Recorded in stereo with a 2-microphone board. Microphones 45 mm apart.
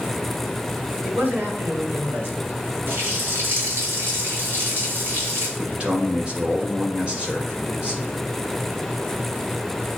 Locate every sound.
1.0 s a man speaking: 50° right (ahead or behind), 2.5 m
2.9 s a running tap: 50° right (ahead or behind), 3 m
5.6 s a man speaking: 25° right (ahead or behind), 2.0 m